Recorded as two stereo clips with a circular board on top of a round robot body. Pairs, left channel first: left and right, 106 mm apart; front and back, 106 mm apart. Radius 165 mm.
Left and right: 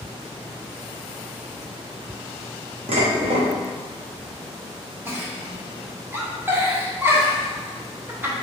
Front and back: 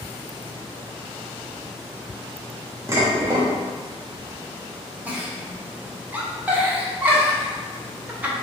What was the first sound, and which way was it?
Dishes clattering, 115° right.